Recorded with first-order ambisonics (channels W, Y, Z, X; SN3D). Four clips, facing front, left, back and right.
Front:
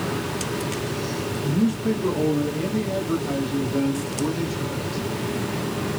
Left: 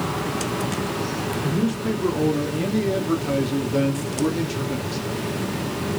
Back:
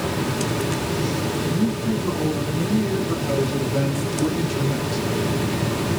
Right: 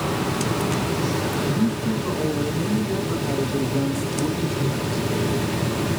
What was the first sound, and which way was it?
A man speaking, 70° left.